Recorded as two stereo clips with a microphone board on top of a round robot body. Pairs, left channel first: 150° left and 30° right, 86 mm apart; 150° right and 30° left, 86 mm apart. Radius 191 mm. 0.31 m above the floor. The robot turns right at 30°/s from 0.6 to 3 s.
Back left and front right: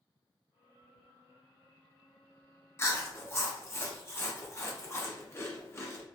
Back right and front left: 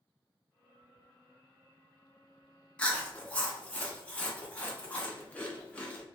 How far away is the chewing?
About 1.1 m.